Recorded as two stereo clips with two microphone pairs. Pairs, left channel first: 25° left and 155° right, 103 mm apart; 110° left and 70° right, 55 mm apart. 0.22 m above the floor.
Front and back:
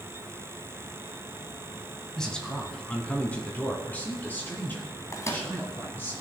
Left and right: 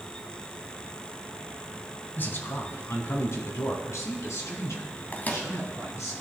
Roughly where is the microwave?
Ahead left.